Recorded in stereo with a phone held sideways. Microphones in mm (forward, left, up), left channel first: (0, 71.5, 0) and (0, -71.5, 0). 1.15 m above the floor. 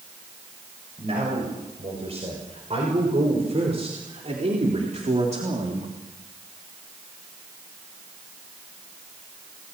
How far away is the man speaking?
About 7 m.